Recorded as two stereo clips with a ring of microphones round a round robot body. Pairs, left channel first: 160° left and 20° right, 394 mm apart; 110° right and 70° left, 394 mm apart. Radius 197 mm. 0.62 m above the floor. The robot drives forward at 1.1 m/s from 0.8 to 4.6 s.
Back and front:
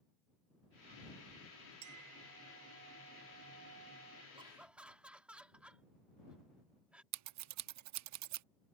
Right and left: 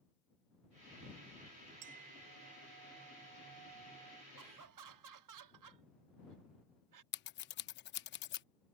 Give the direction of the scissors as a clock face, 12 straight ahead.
2 o'clock.